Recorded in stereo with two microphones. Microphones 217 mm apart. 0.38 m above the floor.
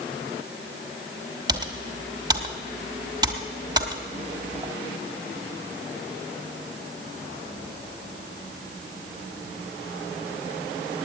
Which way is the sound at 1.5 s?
20° right (ahead or behind).